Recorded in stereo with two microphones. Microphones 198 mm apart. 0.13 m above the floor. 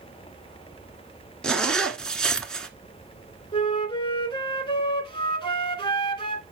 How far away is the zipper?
About 0.9 m.